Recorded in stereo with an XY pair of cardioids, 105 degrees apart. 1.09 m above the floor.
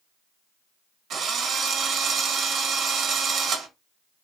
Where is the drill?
60° right, 0.8 m.